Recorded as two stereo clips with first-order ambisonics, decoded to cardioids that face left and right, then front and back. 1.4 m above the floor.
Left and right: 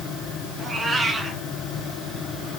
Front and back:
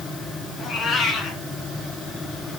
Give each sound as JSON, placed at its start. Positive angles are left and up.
{"t": 0.6, "sound": "a cat meowing", "azimuth_deg": -35, "distance_m": 1.5}